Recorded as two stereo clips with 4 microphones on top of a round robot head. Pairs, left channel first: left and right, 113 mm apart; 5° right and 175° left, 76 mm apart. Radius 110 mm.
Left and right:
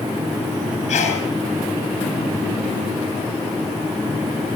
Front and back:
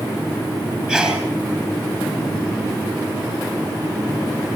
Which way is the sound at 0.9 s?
100° left.